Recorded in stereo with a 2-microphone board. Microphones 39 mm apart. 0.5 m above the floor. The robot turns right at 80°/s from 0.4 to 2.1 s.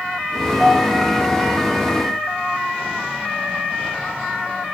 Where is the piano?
5° right, 5 m; by 1.5 s 70° left, 5 m.